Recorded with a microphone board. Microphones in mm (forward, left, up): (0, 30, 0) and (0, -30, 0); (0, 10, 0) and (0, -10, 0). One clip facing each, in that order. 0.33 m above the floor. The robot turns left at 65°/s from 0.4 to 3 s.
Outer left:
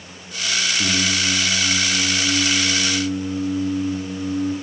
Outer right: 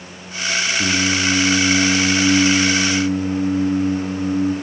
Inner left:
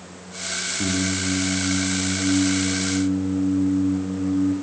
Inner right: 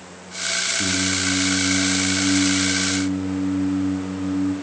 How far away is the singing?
About 4 m.